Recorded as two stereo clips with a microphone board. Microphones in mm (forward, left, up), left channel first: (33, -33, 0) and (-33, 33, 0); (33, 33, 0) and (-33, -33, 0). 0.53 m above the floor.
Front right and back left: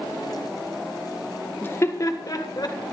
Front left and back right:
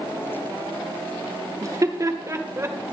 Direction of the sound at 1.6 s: 105° right.